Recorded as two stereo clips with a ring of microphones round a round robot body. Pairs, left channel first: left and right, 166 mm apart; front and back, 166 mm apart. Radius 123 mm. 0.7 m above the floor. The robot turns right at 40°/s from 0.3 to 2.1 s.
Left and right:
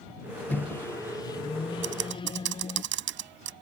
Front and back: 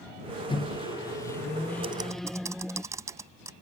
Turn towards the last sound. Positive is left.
turn(degrees=-100)